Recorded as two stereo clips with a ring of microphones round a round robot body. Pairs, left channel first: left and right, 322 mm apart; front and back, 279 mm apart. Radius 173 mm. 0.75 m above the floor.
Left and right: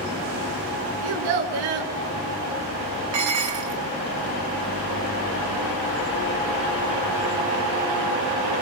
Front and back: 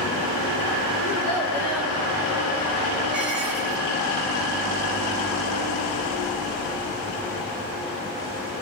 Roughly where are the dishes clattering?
Right.